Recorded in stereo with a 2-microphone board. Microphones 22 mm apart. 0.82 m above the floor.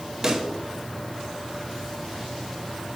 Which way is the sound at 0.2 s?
25° right (ahead or behind).